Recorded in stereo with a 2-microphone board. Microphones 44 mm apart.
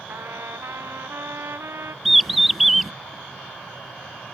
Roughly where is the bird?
Centre.